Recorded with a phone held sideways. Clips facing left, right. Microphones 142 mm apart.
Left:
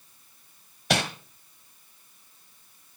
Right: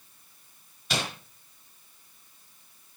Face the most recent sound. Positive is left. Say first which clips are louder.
# left 6 dB
turn(degrees=70)  # may be behind; listen again after turning